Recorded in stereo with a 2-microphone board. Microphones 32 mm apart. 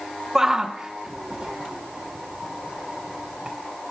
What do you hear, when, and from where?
0.3 s a shout: 15° right (ahead or behind), 0.8 m; by 3.6 s 35° right (ahead or behind), 2 m